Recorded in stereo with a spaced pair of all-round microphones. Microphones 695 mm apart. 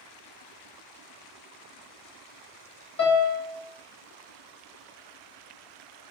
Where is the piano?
15° left (ahead or behind), 0.8 m.